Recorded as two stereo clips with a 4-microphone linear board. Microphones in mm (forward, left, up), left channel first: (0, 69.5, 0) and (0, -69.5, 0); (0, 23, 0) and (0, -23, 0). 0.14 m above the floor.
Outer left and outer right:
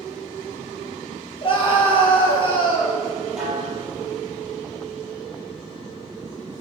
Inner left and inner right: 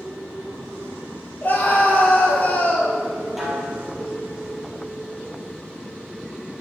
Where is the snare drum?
5° right (ahead or behind), 3.5 m.